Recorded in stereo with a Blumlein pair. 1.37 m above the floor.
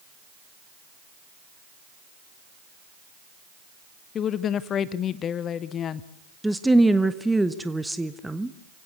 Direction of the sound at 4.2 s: 25° left.